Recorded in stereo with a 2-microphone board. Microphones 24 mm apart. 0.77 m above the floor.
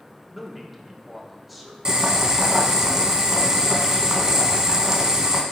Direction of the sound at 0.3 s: 5° right (ahead or behind).